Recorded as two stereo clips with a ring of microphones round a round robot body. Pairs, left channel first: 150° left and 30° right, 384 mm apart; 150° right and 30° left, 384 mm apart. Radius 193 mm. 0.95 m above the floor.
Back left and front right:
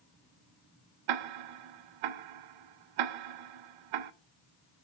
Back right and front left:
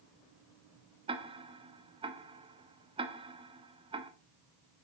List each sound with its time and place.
1.1 s ticking: 45° right, 0.6 m